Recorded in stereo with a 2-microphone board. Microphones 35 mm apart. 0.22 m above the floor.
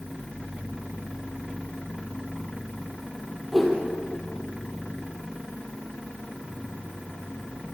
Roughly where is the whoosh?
Centre.